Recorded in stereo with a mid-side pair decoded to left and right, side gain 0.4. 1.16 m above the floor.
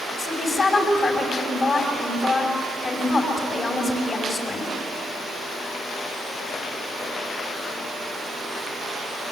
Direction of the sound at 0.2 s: 45° left.